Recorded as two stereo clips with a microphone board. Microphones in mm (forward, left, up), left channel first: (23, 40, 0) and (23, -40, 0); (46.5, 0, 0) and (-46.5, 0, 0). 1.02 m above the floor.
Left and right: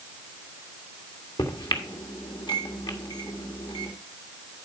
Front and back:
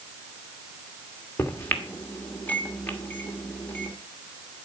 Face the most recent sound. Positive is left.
turn(degrees=70)